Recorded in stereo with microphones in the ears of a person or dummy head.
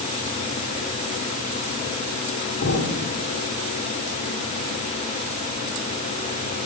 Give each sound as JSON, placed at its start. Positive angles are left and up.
{"t": 2.6, "sound": "an explosion", "side_deg": 55, "distance_m": 7.0}